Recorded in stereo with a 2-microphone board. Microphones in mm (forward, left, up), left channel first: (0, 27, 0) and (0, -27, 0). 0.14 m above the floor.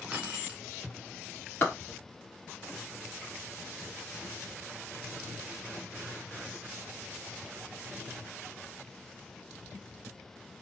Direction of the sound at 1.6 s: 30° left (ahead or behind).